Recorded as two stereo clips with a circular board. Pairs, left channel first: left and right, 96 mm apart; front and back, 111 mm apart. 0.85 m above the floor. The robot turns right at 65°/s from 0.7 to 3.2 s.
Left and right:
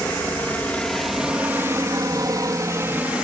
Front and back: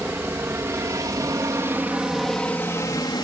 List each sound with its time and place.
0.0 s a helicopter: 140° left; by 3.2 s 15° right